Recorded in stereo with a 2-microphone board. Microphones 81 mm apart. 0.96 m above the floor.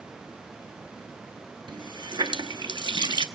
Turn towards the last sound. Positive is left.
turn(degrees=-70)  # may be behind; listen again after turning